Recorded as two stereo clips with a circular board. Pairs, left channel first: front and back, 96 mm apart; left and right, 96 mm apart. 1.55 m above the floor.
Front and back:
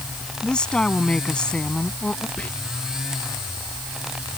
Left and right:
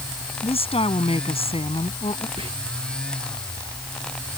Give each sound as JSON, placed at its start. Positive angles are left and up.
{"t": 0.4, "sound": "a woman speaking", "azimuth_deg": 80}
{"t": 2.4, "sound": "whispering", "azimuth_deg": -80}